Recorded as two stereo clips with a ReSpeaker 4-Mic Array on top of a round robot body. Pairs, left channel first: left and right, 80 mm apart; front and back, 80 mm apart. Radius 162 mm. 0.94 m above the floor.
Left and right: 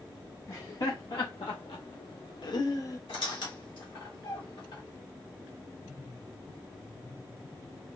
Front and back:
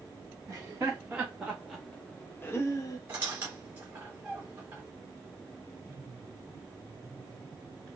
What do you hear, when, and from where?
0.5 s laughter: 120° left, 1.3 m; by 3.0 s 40° left, 0.9 m
3.1 s a squeak: 110° left, 1.4 m